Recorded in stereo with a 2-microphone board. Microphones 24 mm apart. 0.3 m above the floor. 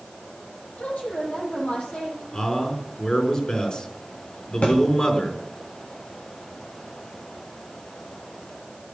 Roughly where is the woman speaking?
Left.